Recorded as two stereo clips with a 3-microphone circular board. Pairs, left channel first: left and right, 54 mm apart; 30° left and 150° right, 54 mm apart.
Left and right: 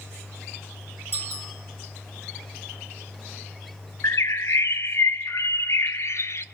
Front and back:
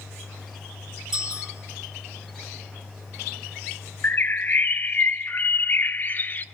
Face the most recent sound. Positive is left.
turn(degrees=75)